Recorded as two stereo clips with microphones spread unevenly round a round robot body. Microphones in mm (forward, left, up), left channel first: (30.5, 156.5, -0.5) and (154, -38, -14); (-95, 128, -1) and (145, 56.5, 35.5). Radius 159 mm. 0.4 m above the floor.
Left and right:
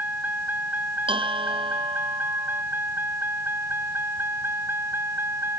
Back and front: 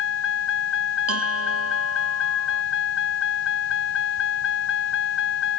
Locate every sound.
0.0 s a vehicle: 145° right; by 5.6 s 140° right
1.1 s a bell: 10° left